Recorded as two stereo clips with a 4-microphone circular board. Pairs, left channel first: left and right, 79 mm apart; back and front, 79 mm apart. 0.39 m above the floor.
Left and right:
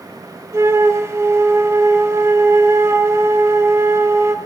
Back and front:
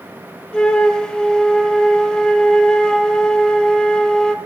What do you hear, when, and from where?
0.5 s a flute: 105° right, 0.6 m